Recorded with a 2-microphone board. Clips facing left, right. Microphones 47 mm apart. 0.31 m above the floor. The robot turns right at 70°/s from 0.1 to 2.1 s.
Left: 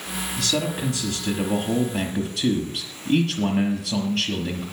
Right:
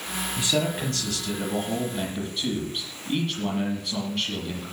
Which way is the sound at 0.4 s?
25° right.